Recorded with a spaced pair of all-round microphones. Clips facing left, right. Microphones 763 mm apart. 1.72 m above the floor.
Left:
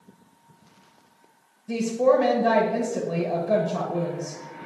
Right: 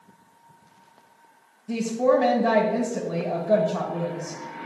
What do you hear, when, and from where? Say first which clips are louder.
1.7 s a woman speaking: left 1 dB; 5° left (ahead or behind), 0.6 m